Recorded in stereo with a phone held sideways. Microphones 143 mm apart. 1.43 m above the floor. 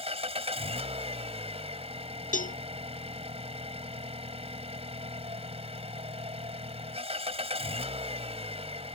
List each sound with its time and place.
0.0 s an engine running: 45° right (ahead or behind)
2.3 s a cowbell: 65° left (ahead or behind)